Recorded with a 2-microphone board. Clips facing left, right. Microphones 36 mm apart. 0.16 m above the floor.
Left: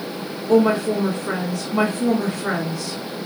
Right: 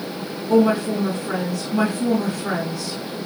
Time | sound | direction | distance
0.5 | a woman speaking | 40° left (ahead or behind) | 1.6 m